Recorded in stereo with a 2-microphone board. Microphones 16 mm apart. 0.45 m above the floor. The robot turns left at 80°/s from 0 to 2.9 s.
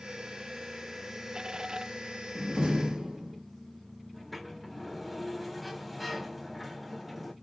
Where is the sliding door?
5° right (ahead or behind), 1.5 m.